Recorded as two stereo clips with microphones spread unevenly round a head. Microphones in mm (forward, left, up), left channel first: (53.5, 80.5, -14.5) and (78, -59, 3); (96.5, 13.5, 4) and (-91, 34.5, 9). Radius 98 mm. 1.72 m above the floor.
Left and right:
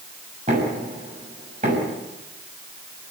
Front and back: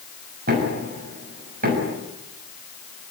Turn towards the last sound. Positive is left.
turn(degrees=-135)